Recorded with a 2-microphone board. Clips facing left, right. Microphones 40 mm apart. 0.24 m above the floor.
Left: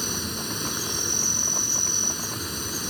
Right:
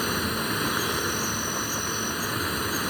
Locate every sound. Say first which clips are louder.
0.0 s an insect: right 5 dB; 35° right (ahead or behind)